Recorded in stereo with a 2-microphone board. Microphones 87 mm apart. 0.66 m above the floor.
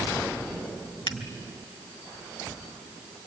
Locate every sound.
1.1 s a finger snap: 60° left (ahead or behind), 1.6 m